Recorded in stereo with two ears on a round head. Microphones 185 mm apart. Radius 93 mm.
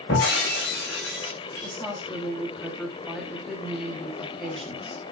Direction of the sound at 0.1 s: 55° left (ahead or behind).